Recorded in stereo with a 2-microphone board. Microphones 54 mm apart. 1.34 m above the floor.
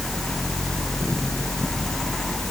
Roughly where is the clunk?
No clunk in this recording.